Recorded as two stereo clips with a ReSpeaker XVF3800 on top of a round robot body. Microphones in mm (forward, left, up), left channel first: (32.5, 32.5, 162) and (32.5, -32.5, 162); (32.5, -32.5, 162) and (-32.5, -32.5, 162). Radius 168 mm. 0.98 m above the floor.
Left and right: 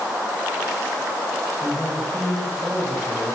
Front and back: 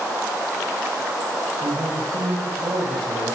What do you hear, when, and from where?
1.6 s a man speaking: 175° right, 8 m; by 3.4 s 160° right, 7.5 m